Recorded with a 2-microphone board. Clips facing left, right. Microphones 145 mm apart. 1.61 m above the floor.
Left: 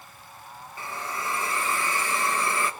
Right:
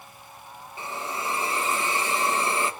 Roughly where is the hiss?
Right.